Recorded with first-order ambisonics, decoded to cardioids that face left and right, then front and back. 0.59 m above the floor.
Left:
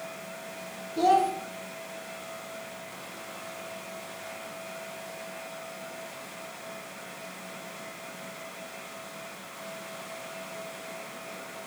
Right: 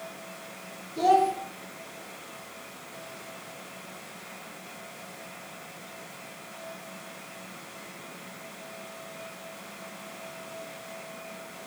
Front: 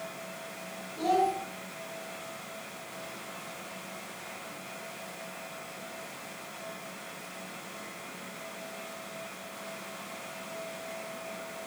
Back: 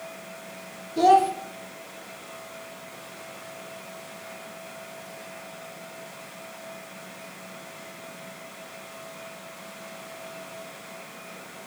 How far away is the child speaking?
About 0.6 m.